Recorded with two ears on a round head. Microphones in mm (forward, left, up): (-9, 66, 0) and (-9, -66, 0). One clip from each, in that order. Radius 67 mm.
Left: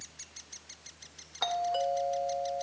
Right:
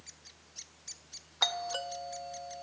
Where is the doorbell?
40° right (ahead or behind), 1.3 m.